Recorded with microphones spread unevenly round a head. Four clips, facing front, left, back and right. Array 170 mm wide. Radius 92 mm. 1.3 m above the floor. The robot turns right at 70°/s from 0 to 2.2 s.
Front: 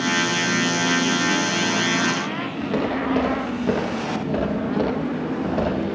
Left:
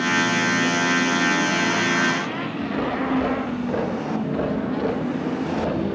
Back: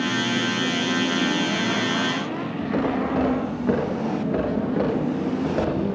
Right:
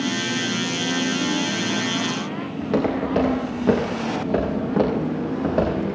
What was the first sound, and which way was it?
Footsteps, 70° right.